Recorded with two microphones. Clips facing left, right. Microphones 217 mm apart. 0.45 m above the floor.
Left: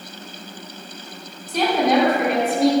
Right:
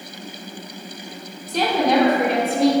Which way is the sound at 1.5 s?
Centre (ahead or behind).